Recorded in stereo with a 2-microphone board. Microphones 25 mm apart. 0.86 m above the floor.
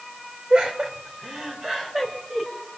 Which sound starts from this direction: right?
Laughter, at 0.5 s.